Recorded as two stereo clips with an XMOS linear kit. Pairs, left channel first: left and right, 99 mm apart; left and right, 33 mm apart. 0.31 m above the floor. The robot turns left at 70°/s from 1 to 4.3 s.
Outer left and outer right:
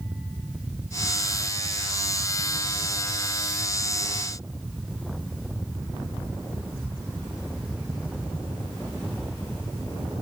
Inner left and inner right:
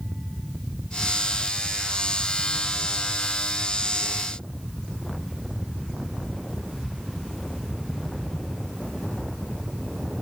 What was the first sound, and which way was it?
Only background noise.